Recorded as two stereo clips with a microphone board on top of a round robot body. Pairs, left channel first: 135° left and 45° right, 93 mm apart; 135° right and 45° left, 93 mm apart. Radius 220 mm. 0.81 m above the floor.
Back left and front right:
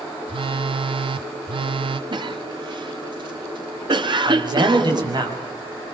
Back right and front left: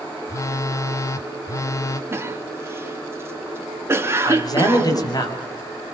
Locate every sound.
0.3 s a phone buzzing: 75° right, 0.6 m
2.1 s a cough: 15° right, 3 m
4.2 s a man speaking: 85° right, 7 m